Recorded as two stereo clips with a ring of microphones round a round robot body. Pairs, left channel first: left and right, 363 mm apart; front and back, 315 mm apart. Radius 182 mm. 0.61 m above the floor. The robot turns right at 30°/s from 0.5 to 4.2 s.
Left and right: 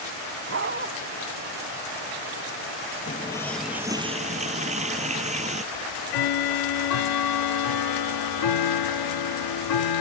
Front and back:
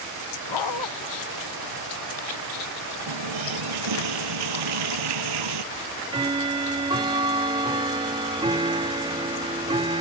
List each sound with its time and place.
0.5 s a dog barking: 35° right; by 0.9 s 25° right
3.1 s a running tap: 165° left; by 5.6 s 160° right
5.7 s ticking: 105° left